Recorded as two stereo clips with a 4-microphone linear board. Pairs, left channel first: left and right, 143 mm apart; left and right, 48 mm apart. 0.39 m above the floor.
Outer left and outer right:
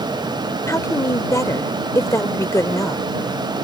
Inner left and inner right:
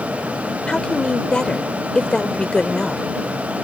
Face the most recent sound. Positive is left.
turn(degrees=20)  # may be behind; listen again after turning